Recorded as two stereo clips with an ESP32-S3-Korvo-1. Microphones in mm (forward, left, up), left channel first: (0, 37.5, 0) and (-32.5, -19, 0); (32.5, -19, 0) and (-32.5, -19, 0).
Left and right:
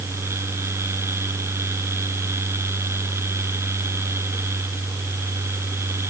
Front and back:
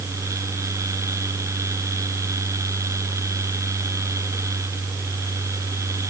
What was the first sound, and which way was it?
Only background noise.